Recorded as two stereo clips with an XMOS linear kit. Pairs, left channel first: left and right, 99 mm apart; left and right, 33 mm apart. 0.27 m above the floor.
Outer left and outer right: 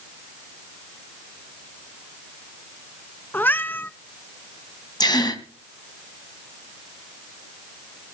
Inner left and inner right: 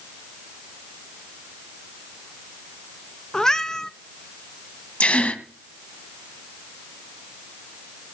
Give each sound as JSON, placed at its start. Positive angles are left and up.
{"t": 3.3, "sound": "a cat meowing", "side_deg": 20, "distance_m": 0.7}
{"t": 5.0, "sound": "a gasp", "side_deg": 45, "distance_m": 2.5}